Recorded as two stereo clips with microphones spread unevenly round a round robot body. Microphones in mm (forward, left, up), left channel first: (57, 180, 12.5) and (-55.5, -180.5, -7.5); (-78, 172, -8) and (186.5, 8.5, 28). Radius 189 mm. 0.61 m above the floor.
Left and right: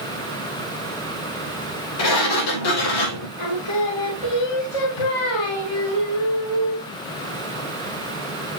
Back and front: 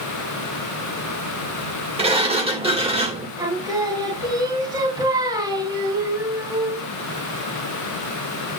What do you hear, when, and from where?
2.0 s a sliding door: 45° left, 3 m
3.4 s singing: 45° left, 3.5 m